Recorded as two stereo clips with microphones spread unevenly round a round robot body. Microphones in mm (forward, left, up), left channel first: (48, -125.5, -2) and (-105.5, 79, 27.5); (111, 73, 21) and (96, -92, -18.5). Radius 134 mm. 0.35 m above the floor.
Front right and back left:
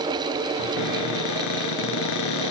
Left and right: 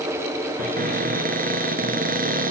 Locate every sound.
0.6 s a cupboard door: 60° right, 2 m